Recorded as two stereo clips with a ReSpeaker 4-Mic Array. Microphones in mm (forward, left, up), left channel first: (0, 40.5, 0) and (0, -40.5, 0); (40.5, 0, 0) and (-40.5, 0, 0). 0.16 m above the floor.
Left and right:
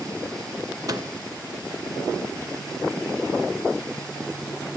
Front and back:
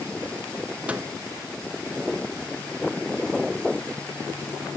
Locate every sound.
0.9 s a microwave: 115° right, 1.8 m